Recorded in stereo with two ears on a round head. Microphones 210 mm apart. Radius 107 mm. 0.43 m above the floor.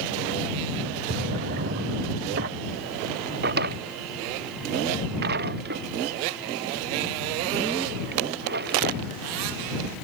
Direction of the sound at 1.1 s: 45° right (ahead or behind).